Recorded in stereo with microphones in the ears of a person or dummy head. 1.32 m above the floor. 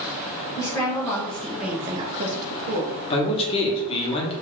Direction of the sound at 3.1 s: 30° left (ahead or behind).